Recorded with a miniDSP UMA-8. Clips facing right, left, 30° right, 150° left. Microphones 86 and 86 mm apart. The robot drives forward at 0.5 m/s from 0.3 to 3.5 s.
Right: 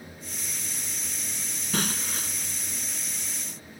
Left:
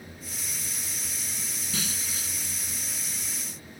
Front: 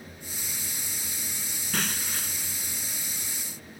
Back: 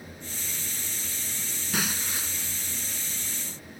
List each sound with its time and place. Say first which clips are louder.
1.7 s breaking glass: right 7 dB, back 1 dB; 125° right; by 2.6 s 130° right